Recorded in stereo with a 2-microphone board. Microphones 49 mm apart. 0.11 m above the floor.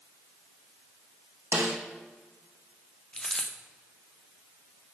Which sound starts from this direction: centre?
A dropped coin, at 3.1 s.